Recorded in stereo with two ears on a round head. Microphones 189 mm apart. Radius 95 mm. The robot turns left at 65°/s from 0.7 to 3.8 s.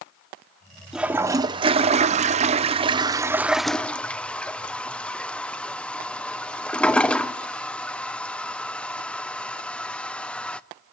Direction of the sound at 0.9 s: Centre (ahead or behind).